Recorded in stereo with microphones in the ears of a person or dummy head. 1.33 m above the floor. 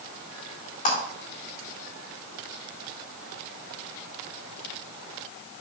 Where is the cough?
I don't hear a cough.